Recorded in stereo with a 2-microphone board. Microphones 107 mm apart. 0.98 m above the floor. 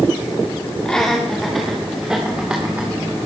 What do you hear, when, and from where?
0.8 s laughter: 5° left (ahead or behind), 2.5 m; by 2.9 s 15° right (ahead or behind), 3 m